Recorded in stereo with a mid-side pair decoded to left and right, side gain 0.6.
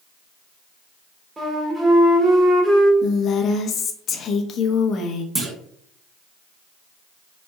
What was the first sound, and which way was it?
A flute, 25° right.